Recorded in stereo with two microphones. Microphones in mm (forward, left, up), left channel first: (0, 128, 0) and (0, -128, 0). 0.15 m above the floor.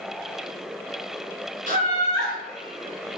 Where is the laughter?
35° right (ahead or behind), 1.3 m.